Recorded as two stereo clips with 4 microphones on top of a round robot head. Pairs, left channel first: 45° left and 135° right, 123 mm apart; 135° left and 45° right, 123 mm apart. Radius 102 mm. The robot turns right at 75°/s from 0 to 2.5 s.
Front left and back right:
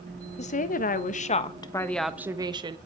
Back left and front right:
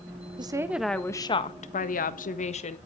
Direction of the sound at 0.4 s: 10° left.